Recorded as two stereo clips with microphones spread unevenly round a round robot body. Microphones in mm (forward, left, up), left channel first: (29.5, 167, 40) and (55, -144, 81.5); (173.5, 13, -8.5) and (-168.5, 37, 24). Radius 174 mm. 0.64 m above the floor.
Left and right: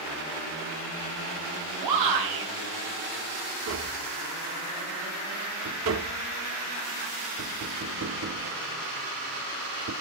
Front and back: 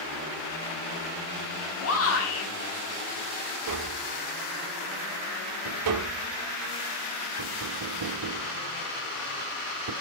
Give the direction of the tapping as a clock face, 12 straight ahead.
5 o'clock.